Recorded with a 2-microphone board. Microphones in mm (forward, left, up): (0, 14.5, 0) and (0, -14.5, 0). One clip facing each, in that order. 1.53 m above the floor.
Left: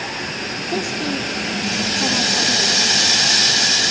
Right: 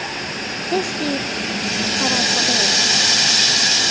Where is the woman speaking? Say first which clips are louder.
Right 3 dB; 50° right (ahead or behind), 1.6 m.